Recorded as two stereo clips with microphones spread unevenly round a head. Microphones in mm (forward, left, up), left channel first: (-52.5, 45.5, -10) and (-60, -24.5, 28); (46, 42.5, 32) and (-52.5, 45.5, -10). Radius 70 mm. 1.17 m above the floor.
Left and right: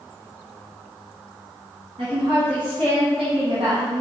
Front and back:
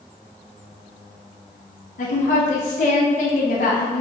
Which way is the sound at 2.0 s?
25° right.